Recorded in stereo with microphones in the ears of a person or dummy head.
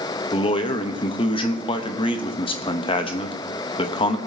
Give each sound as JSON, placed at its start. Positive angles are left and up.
{"t": 0.3, "sound": "a man speaking", "side_deg": 25, "distance_m": 0.8}